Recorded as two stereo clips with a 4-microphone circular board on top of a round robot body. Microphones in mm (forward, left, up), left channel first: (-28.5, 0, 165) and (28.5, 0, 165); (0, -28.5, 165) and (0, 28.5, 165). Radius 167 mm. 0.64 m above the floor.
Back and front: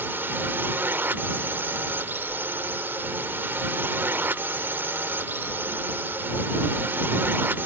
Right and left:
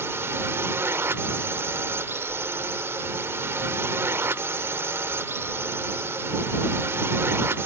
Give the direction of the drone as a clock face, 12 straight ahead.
10 o'clock.